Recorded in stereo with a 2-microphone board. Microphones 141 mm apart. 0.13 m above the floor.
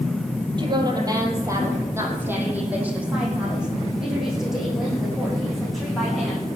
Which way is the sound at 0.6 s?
35° right (ahead or behind).